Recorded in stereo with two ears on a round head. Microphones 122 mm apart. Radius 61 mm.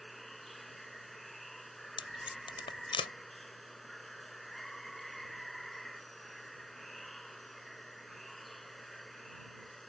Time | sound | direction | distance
0.0 | running water | centre (ahead or behind) | ?
2.0 | tape being pulled | 40° left (ahead or behind) | ?